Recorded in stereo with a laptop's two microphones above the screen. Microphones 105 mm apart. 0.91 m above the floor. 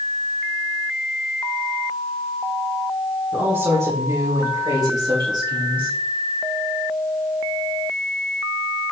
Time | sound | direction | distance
3.3 | a woman speaking | 25° right (ahead or behind) | 3 m